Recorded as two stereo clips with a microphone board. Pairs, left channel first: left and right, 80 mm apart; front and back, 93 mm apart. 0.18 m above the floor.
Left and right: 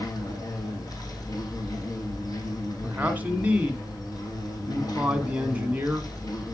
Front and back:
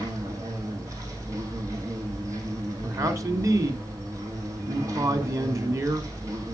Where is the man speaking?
150° right, 1.5 m.